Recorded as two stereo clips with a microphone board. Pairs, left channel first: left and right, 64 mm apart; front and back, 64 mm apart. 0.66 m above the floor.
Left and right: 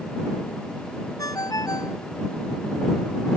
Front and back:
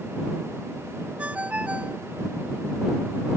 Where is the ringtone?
110° left.